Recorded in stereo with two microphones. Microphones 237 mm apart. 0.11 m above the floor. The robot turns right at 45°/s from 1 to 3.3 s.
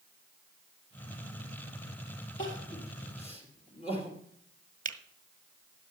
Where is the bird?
I don't hear a bird.